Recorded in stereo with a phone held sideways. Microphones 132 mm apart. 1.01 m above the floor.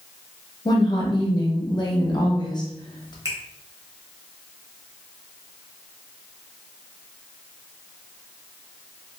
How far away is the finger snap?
About 0.8 m.